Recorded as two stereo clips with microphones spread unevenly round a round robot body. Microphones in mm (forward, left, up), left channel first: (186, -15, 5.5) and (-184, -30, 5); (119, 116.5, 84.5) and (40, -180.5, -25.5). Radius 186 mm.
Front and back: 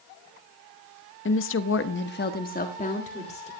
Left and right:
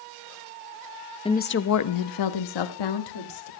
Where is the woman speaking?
20° right, 0.8 m; by 3.5 s 75° left, 2 m.